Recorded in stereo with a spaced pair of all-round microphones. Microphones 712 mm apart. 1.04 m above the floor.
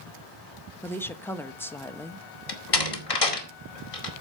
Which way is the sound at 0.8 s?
5° left (ahead or behind).